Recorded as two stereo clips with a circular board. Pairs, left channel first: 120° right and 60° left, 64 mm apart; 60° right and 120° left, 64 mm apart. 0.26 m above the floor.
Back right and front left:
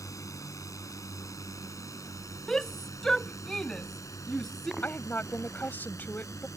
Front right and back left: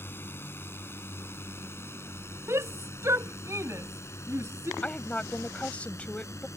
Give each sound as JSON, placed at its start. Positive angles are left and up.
{"t": 0.0, "sound": "a drone", "azimuth_deg": -110}
{"t": 2.5, "sound": "a shout", "azimuth_deg": 160}
{"t": 4.8, "sound": "a woman speaking", "azimuth_deg": -110}